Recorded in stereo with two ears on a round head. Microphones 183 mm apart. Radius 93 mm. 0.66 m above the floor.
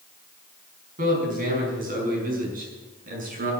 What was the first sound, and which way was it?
A man speaking, 45° right (ahead or behind).